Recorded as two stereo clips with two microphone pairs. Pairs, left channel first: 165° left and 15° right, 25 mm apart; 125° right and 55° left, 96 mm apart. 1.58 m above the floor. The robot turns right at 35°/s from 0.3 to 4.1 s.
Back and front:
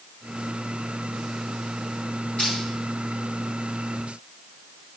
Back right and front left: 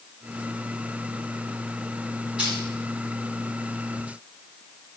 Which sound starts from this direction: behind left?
Crushing, at 2.4 s.